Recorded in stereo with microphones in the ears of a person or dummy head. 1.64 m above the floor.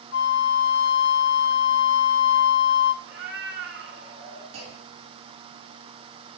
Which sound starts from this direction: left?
A flute, at 0.1 s.